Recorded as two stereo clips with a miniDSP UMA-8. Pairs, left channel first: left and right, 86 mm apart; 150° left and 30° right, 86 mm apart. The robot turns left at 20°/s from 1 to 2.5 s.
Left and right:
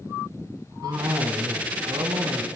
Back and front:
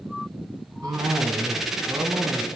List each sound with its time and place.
0.8 s a cough: 60° right, 3 m; by 2.5 s 90° right, 3 m